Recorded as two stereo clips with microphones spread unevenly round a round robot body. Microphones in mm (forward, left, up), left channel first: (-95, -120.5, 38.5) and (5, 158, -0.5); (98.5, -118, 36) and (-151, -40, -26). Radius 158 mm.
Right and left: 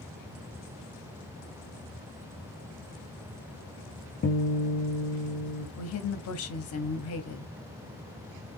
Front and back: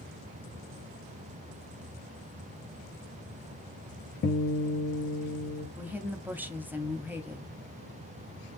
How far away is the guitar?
About 0.9 m.